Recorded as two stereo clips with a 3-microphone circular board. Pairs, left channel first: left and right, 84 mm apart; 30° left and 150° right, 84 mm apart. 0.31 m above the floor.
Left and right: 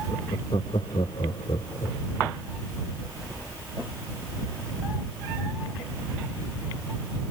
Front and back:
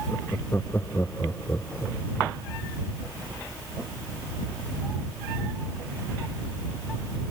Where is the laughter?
95° left; by 2.4 s 100° left.